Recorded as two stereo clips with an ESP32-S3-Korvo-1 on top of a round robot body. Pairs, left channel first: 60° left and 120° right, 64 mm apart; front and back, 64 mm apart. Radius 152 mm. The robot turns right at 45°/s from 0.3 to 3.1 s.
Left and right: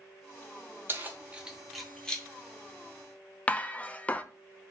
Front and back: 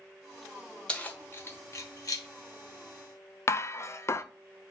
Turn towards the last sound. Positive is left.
turn(degrees=0)